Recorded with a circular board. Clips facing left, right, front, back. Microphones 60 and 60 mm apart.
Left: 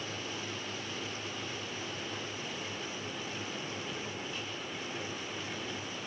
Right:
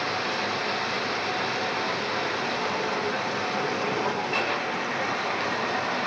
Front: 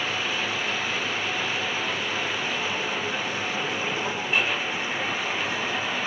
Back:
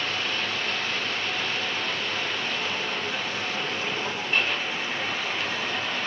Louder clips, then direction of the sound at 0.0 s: Right 13 dB, front 1 dB; 85° right.